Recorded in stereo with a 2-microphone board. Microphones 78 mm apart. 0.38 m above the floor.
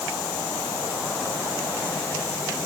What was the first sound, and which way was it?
Only background noise.